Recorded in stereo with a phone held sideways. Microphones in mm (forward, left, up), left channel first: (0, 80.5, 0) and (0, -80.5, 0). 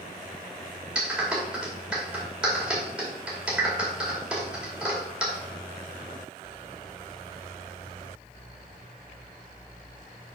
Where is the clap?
5° right (ahead or behind), 2.5 m.